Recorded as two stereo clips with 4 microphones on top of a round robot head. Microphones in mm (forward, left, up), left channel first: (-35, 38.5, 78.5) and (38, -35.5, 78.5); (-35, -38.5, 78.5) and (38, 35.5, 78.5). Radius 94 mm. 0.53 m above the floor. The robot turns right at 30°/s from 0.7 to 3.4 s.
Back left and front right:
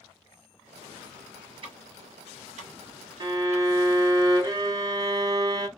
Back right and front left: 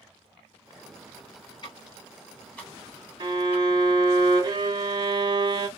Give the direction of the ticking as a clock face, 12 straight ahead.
3 o'clock.